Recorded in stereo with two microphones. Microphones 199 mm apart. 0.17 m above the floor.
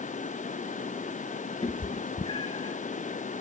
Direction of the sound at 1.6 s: 30° left (ahead or behind).